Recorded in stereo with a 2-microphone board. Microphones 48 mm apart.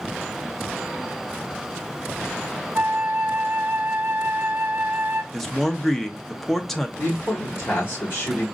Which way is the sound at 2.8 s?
50° right (ahead or behind).